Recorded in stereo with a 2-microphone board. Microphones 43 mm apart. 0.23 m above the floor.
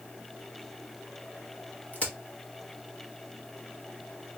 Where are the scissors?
I don't hear scissors.